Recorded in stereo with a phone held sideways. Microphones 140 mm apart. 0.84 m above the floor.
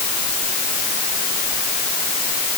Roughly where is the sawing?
No sawing in this recording.